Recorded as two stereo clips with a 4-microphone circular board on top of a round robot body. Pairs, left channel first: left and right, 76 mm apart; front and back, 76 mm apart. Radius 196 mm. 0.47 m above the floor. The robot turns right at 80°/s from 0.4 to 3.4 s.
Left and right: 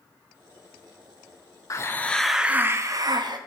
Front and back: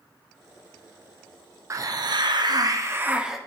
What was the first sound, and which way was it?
A hiss, 135° left.